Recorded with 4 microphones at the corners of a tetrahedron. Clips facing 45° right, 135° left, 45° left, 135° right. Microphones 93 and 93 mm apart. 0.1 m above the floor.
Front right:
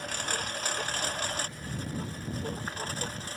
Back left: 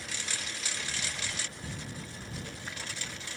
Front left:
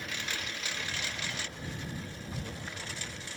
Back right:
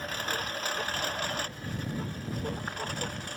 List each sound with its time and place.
0.0 s a lawn mower: 85° right; by 3.4 s 95° right